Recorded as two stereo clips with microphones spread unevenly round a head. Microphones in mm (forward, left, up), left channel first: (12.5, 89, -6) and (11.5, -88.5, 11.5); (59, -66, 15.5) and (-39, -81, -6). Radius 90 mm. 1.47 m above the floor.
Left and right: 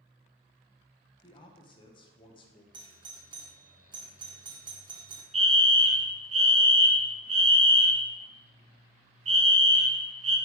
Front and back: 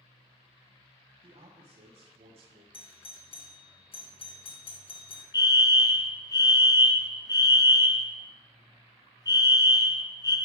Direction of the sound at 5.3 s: 40° right.